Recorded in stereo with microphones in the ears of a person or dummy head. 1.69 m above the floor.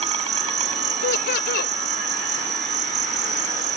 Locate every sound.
0.0 s an insect: 25° right (ahead or behind)
1.0 s laughter: 55° left (ahead or behind)